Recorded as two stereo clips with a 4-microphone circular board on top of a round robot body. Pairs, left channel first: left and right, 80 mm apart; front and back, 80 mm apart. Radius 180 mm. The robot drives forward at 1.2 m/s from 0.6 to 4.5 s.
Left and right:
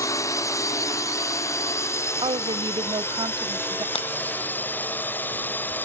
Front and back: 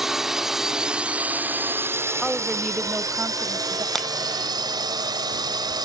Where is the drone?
95° left; by 5.8 s 155° left.